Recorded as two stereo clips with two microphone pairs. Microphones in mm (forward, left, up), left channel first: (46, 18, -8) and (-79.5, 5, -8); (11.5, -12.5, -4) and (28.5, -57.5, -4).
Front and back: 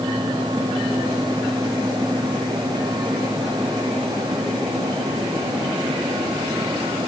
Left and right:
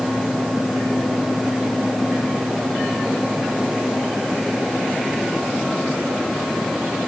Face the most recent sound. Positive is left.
No sound to turn to.